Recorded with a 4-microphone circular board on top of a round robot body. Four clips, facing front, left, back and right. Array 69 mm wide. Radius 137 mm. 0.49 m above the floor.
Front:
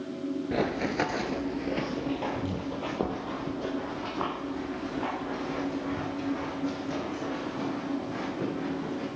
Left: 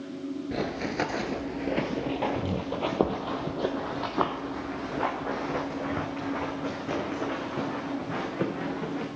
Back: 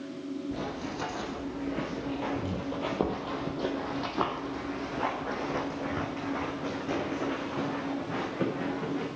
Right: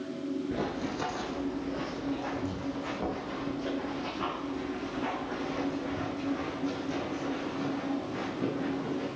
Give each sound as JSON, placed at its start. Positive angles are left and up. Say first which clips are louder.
{"t": 0.5, "sound": "running footsteps", "louder": "left 2 dB, front 7 dB", "azimuth_deg": 15, "distance_m": 0.6}